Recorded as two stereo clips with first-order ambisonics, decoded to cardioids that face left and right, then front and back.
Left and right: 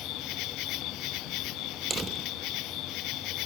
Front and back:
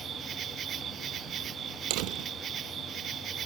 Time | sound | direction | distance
0.0 | an insect | 125° left | ?
1.9 | a door slam | 160° right | ?